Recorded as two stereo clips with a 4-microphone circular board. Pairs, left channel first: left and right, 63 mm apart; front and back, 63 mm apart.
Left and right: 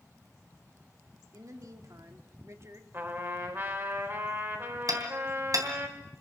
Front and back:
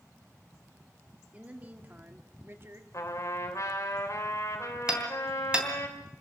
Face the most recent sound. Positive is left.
turn(degrees=-105)